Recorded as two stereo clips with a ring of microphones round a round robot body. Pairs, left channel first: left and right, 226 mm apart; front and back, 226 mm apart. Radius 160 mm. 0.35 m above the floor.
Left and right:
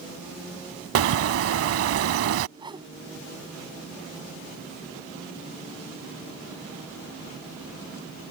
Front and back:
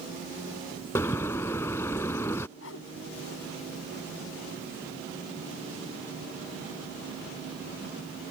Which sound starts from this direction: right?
A bird, at 0.9 s.